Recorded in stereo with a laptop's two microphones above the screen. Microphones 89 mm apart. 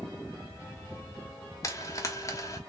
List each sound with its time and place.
1.6 s frying: 35° left (ahead or behind), 1.0 m